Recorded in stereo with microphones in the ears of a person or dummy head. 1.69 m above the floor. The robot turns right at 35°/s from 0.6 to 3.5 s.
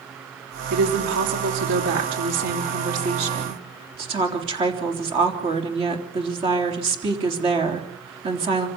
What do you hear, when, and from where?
0.7 s a woman speaking: 130° right, 3.5 m; by 8.7 s 30° right, 3.5 m